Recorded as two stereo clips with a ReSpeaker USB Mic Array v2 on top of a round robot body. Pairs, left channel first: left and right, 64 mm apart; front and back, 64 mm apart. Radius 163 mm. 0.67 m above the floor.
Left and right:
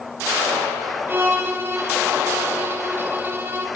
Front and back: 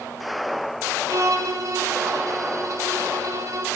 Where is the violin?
145° right, 2 m.